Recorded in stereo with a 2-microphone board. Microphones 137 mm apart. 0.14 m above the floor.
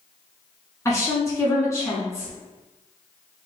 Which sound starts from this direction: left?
A woman speaking, at 0.8 s.